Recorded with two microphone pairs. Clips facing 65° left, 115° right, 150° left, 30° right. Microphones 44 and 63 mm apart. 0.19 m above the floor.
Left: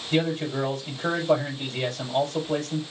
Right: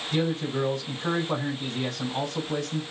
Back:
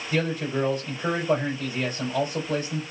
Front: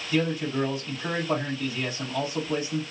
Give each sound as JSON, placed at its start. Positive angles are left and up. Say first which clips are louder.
{"t": 0.1, "sound": "a man speaking", "louder": "left 2 dB, even", "azimuth_deg": 95, "distance_m": 5.0}